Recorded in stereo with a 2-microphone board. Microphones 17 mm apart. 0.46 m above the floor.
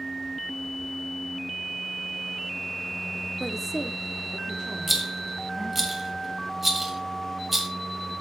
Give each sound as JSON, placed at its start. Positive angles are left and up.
{"t": 3.4, "sound": "a woman speaking", "side_deg": 20, "distance_m": 0.8}
{"t": 4.9, "sound": "a rattle", "side_deg": -5, "distance_m": 1.9}